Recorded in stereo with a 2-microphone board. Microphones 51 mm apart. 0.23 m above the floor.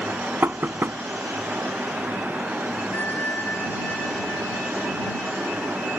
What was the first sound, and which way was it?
Knocking, 45° right (ahead or behind).